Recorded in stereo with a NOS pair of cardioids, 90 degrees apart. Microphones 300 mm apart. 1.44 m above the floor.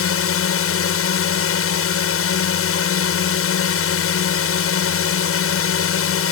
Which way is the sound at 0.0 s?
50° left.